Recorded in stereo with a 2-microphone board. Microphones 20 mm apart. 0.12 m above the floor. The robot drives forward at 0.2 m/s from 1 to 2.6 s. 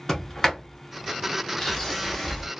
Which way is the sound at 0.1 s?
20° left (ahead or behind).